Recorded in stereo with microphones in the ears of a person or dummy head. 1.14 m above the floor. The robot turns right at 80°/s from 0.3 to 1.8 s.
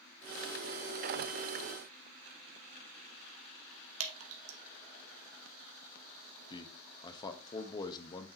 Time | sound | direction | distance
4.0 | dripping | 85° right | 1.5 m
6.5 | a man speaking | 25° left (ahead or behind) | 1.2 m